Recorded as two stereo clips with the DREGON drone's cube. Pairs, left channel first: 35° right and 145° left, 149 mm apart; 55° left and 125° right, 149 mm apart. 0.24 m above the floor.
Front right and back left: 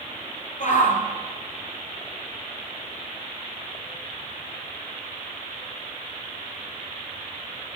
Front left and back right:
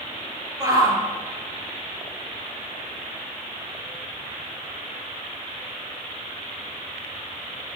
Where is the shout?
60° right, 3.5 m.